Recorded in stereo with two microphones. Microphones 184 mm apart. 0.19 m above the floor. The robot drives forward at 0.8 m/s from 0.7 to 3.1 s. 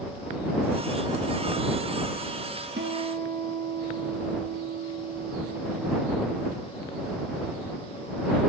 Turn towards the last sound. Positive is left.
turn(degrees=-65)  # may be behind; listen again after turning